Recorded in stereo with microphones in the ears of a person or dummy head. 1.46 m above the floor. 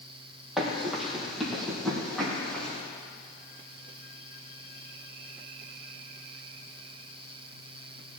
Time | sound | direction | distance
0.6 | running footsteps | centre (ahead or behind) | 3.5 m